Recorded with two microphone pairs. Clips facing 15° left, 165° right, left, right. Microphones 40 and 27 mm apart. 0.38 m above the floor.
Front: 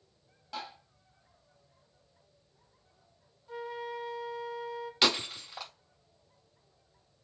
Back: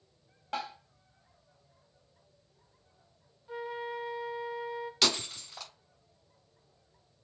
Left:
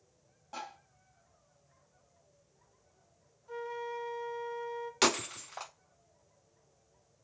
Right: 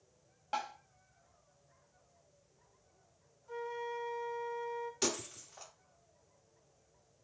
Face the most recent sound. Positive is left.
turn(degrees=90)